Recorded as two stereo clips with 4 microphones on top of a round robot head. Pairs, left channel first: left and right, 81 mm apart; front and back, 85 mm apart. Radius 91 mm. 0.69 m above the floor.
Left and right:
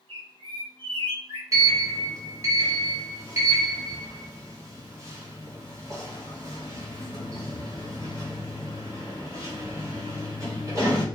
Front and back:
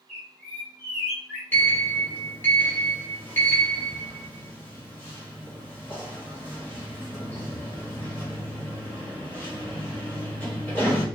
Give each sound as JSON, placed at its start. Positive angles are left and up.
{"t": 0.1, "sound": "a bird", "azimuth_deg": -80, "distance_m": 0.9}
{"t": 1.5, "sound": "a sliding door", "azimuth_deg": -60, "distance_m": 1.3}